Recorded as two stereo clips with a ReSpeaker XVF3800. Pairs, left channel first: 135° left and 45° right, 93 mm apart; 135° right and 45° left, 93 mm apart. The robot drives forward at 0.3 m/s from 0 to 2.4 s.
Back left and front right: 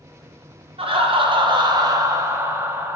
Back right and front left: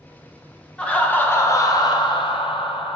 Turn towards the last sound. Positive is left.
turn(degrees=-105)